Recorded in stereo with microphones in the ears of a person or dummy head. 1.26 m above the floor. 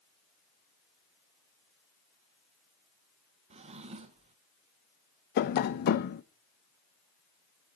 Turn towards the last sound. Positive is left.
turn(degrees=50)  # may be behind; listen again after turning